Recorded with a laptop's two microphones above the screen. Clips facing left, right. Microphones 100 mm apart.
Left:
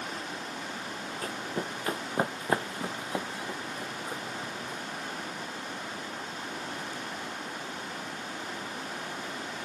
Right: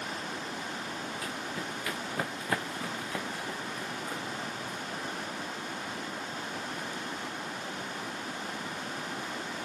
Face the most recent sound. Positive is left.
turn(degrees=10)  # may be behind; listen again after turning